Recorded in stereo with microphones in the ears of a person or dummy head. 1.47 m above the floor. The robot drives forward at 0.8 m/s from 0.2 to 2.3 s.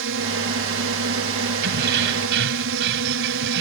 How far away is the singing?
I don't hear singing.